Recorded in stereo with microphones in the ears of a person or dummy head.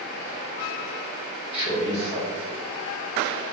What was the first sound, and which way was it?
A man speaking, 30° left (ahead or behind).